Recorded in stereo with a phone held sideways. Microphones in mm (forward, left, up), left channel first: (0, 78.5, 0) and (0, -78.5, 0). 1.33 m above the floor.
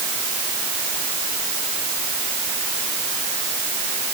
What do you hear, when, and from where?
Only background noise.